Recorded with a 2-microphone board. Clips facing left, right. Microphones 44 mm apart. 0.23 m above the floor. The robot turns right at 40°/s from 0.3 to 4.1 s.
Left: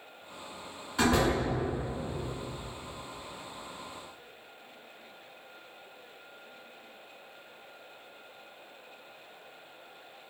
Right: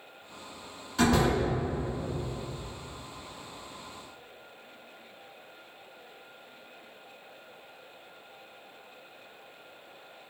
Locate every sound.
1.0 s a door slam: 15° left (ahead or behind), 1.9 m; by 1.4 s 25° left (ahead or behind), 1.9 m